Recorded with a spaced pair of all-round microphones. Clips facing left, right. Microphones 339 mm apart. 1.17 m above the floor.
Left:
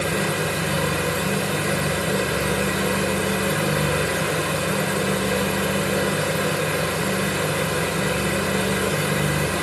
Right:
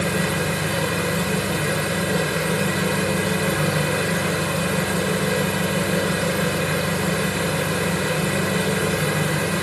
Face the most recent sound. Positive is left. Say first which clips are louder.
# right 1 dB
turn(degrees=0)  # may be behind; listen again after turning